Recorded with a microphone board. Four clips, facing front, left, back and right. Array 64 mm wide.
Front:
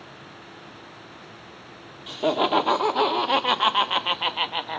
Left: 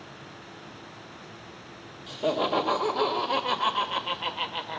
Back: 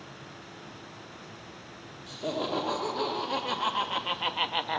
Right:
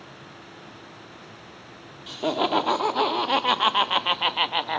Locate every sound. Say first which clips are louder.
2.1 s laughter: right 2 dB, front 9 dB; 25° right, 1.6 m; by 4.8 s 95° right, 0.7 m